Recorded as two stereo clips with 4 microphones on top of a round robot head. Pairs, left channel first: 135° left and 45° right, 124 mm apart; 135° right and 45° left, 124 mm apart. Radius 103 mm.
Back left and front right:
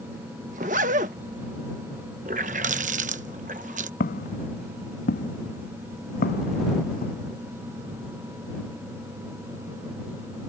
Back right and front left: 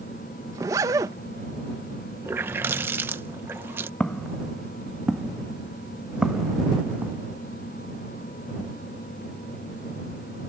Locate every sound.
0.5 s a zipper: 20° right
2.2 s a running tap: 25° right
4.0 s footsteps: 140° left; by 7.2 s 125° left